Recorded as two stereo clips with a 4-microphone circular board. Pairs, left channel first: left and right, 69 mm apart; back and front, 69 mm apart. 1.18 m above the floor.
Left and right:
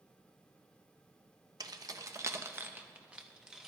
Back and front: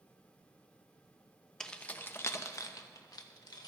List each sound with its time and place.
1.6 s keys jangling: 100° right, 0.7 m; by 3.7 s 170° right, 1.2 m